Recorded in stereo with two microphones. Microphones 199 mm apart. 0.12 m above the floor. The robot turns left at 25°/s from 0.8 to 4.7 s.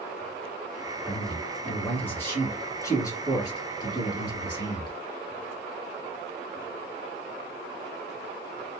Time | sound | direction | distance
1.0 | a man speaking | centre (ahead or behind) | 1.7 m